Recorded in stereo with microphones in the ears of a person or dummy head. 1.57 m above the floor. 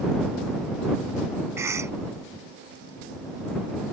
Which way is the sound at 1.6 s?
15° right (ahead or behind).